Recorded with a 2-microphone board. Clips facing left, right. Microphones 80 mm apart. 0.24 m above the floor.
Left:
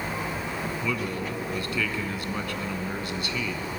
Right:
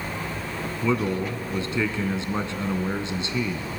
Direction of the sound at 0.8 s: 25° right (ahead or behind).